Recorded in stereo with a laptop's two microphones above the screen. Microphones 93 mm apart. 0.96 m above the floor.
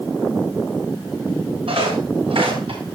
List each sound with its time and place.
1.7 s footsteps: 80° right, 8 m; by 2.8 s 75° right (ahead or behind), 8 m